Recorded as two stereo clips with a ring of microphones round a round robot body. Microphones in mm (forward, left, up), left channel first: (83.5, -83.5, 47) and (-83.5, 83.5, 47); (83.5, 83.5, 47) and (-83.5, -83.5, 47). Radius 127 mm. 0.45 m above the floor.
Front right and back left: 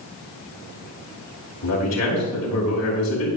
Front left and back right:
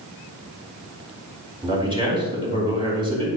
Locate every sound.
1.6 s a man speaking: 65° right, 4.5 m